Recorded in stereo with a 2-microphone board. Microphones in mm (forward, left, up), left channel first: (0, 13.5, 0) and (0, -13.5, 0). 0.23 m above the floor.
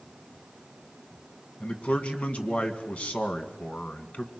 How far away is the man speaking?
About 2.0 m.